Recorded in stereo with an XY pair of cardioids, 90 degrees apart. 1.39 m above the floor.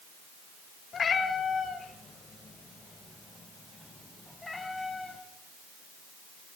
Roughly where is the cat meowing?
Ahead left.